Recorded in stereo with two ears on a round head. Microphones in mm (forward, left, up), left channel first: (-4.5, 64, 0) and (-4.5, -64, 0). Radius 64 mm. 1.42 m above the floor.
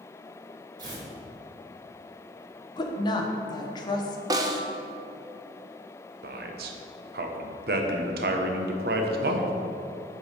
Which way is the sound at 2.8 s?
30° left (ahead or behind).